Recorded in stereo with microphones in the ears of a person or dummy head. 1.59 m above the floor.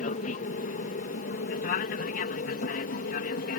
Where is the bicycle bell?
I don't hear a bicycle bell.